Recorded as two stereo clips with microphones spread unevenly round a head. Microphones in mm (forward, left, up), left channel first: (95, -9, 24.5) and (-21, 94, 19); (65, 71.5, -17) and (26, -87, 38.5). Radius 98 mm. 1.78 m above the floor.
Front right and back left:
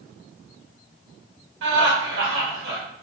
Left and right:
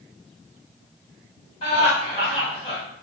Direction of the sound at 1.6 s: 145° left.